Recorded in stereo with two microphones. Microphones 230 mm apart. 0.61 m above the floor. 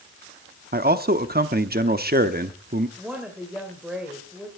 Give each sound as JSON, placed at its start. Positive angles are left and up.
{"t": 0.7, "sound": "a man speaking", "side_deg": -45, "distance_m": 0.9}
{"t": 3.0, "sound": "a woman speaking", "side_deg": -5, "distance_m": 2.5}